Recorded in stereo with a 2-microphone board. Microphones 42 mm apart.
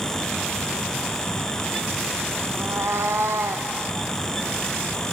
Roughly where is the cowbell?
I don't hear a cowbell.